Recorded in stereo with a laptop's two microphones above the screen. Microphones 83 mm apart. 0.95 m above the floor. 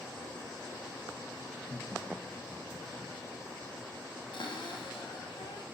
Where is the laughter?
10° left (ahead or behind), 0.8 m; by 3.1 s 30° right (ahead or behind), 0.9 m.